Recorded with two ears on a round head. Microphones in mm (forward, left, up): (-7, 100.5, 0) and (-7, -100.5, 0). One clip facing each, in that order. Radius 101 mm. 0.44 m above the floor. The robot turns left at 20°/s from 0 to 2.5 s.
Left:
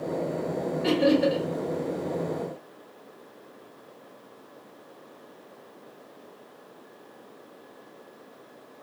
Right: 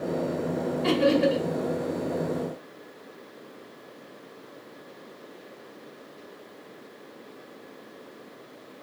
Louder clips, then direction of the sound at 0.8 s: Even; 10° left (ahead or behind).